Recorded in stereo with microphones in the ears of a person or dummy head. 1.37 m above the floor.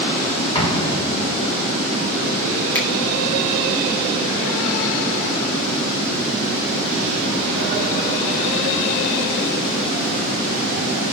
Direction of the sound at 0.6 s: 30° left (ahead or behind).